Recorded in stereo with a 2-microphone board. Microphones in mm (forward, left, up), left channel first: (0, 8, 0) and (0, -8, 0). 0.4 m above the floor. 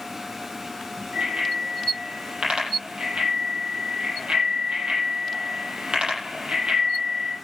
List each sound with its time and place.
1.1 s a bicycle bell: 80° right, 9 m